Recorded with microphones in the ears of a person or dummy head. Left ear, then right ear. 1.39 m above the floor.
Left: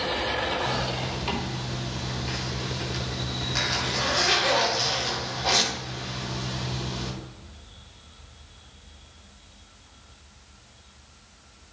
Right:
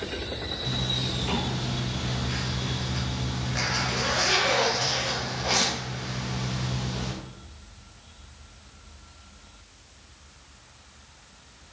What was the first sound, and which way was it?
A zipper, 50° left (ahead or behind).